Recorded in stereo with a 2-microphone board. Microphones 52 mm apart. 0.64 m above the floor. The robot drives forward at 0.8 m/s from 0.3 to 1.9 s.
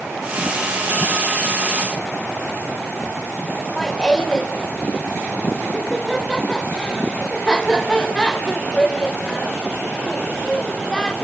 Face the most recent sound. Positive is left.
turn(degrees=15)  # may be behind; listen again after turning